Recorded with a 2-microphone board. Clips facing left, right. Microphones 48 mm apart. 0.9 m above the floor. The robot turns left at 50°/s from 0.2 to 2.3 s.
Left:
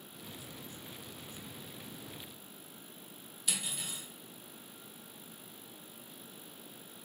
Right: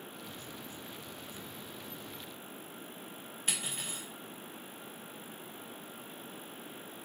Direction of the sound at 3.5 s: 40° right (ahead or behind).